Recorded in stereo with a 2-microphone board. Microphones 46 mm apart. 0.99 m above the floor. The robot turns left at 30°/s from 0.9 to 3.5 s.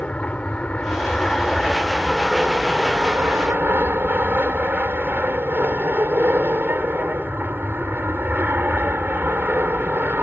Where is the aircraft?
30° left; by 10.2 s 45° right.